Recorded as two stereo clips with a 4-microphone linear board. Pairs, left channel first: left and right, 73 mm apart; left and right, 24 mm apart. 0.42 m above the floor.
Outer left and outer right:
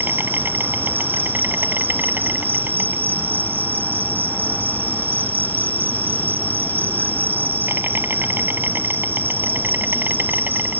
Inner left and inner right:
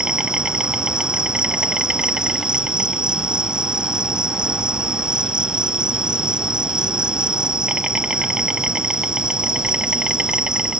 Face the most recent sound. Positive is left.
turn(degrees=-30)  # may be behind; listen again after turning